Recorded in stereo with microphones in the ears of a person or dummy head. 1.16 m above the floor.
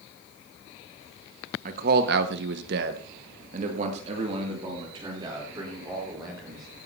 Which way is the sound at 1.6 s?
45° right (ahead or behind).